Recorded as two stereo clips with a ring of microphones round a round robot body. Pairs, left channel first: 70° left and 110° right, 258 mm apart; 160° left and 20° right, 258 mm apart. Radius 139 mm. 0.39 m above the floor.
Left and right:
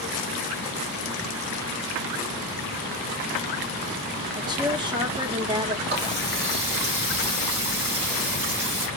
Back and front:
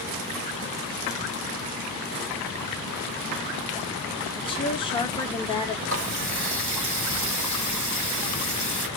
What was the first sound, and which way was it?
A woman speaking, 160° right.